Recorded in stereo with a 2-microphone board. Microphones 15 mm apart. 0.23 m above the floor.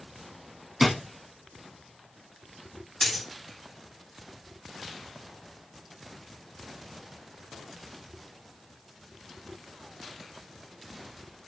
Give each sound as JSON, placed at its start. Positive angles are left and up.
{"t": 0.8, "sound": "a drawer", "side_deg": -15, "distance_m": 0.8}
{"t": 3.0, "sound": "a dropped coin", "side_deg": 25, "distance_m": 1.4}